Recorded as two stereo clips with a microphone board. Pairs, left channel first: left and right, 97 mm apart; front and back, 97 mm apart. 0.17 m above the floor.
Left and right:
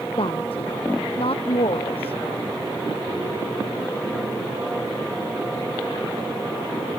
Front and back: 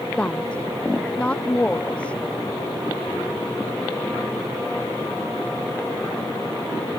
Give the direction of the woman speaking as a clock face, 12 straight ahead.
9 o'clock.